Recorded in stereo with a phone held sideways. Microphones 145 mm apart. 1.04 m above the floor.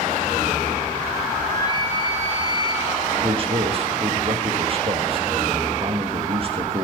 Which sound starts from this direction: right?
A man speaking, at 3.2 s.